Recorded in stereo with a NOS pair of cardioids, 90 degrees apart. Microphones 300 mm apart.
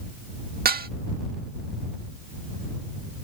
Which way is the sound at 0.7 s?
30° right.